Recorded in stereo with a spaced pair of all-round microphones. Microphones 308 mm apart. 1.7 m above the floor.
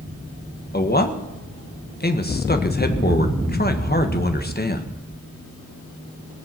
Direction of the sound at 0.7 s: 30° left (ahead or behind).